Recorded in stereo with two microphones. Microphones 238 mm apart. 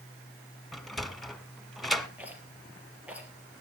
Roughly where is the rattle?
Centre.